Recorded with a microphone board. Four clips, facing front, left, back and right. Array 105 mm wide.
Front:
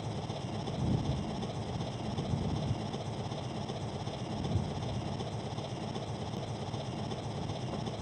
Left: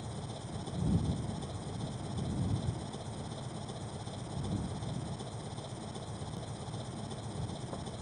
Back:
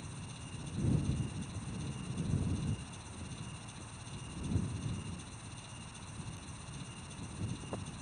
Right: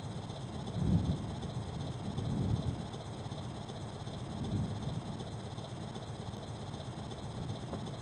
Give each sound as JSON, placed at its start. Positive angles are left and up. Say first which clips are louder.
{"t": 0.0, "sound": "an engine running", "louder": "left 1 dB, front 10 dB", "azimuth_deg": 5}